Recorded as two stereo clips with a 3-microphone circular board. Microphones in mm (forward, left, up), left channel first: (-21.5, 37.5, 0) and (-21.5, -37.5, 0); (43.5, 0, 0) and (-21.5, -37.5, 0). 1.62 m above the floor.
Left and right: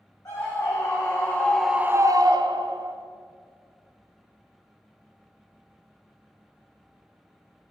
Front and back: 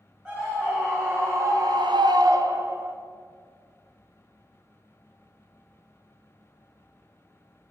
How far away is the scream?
About 1.6 m.